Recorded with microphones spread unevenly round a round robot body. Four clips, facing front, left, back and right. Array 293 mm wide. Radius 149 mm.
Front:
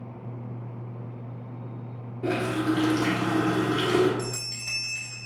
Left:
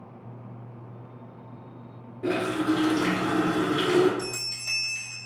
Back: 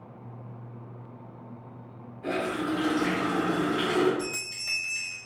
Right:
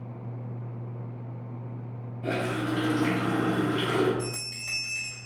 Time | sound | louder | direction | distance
2.2 | a running tap | left 4 dB, front 3 dB | 30° left | 0.9 m
4.2 | a bell | even, front 1 dB | 80° left | 1.4 m